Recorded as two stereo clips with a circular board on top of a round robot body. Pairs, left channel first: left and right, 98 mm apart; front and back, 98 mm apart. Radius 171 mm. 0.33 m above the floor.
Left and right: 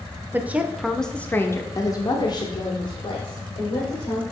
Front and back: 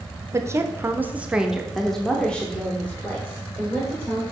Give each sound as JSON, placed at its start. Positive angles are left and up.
{"t": 0.3, "sound": "a woman speaking", "azimuth_deg": -145, "distance_m": 0.9}